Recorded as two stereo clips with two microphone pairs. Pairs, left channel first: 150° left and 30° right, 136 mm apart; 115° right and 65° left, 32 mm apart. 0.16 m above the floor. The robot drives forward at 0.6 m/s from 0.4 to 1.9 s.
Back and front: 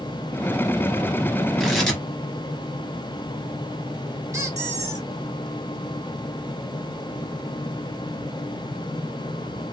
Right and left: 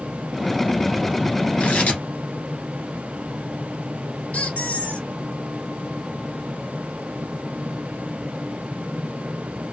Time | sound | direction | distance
1.6 | tearing paper | 120° right | 1.6 m
4.3 | a squeak | 100° right | 1.2 m